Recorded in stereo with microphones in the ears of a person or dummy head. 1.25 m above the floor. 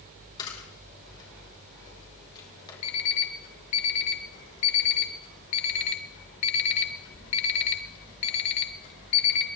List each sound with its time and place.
0.4 s a camera shutter: 25° left (ahead or behind), 5 m
2.8 s an alarm clock: 35° left (ahead or behind), 1.0 m